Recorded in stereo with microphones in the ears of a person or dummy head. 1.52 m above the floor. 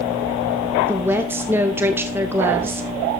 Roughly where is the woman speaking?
Centre.